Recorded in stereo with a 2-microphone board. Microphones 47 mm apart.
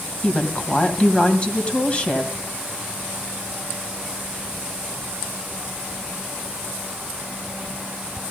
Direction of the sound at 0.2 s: 30° left (ahead or behind).